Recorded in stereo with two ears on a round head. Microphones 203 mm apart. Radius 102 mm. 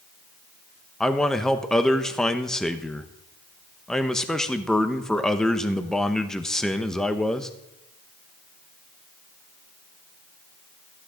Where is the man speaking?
5° left (ahead or behind), 0.9 m.